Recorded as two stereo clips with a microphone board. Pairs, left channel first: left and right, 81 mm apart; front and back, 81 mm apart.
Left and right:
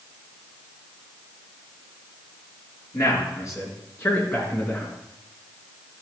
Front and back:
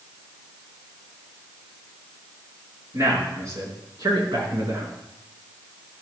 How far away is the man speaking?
About 4.5 m.